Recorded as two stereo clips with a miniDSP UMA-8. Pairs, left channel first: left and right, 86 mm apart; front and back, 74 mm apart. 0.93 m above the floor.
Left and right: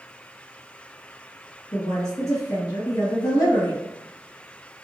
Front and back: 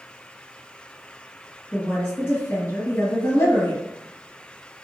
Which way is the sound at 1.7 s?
50° left.